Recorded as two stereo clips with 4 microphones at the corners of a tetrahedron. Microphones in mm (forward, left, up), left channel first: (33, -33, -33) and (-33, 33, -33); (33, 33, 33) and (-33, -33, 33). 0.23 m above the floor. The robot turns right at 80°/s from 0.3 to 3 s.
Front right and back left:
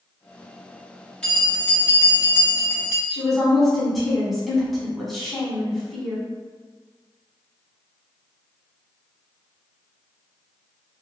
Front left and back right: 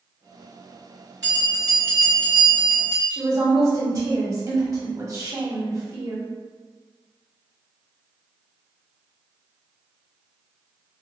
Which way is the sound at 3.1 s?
135° right.